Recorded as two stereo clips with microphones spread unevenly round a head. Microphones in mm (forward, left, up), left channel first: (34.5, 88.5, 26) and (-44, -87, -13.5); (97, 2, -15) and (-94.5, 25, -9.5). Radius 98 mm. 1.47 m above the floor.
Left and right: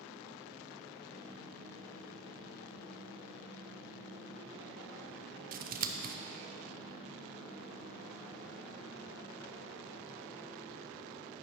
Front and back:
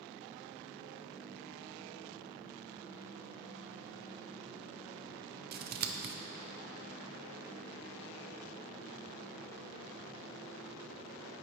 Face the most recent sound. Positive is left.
turn(degrees=-145)